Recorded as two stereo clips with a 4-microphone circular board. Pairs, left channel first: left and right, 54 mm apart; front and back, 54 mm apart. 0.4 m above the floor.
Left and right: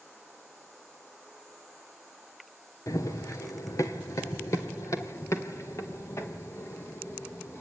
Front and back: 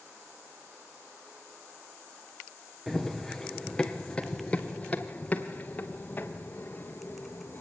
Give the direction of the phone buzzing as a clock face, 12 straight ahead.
I don't hear a phone buzzing.